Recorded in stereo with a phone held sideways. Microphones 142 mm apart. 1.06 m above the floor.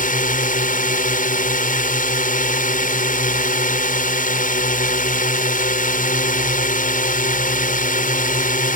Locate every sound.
0.0 s a drone: 75° left (ahead or behind)